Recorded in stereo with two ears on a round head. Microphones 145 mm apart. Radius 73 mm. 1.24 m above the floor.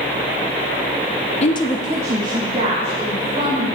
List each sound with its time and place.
1.4 s a woman speaking: 40° left (ahead or behind), 0.6 m; by 3.7 s 40° right (ahead or behind), 3 m